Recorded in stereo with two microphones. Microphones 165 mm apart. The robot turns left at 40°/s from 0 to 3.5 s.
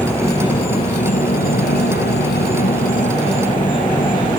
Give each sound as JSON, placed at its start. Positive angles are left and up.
{"t": 0.0, "sound": "an insect", "azimuth_deg": 170}